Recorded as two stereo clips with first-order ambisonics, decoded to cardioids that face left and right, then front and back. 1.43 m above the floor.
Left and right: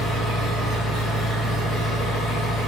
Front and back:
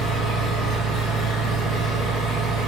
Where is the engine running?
25° right, 1.3 m.